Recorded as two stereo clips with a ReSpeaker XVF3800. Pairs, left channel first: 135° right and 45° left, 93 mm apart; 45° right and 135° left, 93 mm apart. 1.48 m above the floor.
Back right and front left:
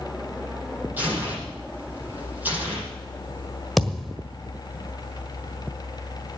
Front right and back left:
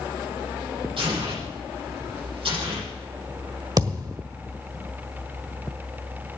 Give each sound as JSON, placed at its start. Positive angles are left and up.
{"t": 1.0, "sound": "tearing paper", "azimuth_deg": 115, "distance_m": 9.0}
{"t": 3.8, "sound": "a thud", "azimuth_deg": 135, "distance_m": 1.5}